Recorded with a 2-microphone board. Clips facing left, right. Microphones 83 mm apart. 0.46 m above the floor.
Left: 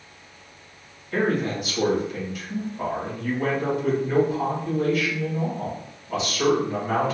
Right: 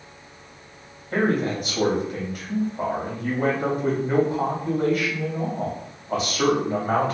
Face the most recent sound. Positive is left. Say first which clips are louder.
# right 1 dB
turn(degrees=-50)  # may be behind; listen again after turning